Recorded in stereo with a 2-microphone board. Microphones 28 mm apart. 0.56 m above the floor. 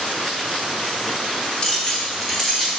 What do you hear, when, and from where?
1.6 s keys jangling: 35° left (ahead or behind), 0.8 m; by 2.7 s centre (ahead or behind), 1.3 m